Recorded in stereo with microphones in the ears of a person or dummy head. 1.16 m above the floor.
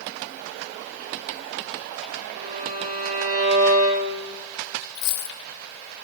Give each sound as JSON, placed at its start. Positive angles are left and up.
{"t": 2.4, "sound": "a violin", "side_deg": -40, "distance_m": 4.0}
{"t": 5.0, "sound": "a dropped coin", "side_deg": 60, "distance_m": 0.8}